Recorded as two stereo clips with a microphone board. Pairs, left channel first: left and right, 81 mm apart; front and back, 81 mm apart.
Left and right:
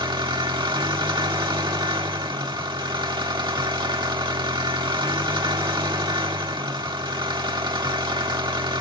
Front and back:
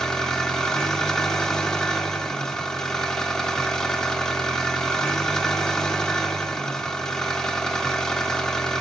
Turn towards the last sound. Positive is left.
turn(degrees=-85)